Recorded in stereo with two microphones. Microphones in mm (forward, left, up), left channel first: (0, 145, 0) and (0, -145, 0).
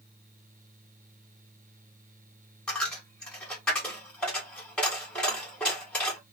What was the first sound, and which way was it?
A dropped coin, 5° left (ahead or behind).